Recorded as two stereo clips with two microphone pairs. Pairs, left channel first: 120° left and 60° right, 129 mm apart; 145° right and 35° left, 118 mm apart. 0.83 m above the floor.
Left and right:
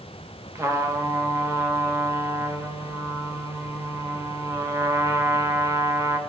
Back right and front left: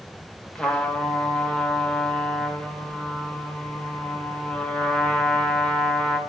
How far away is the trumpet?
About 1.0 m.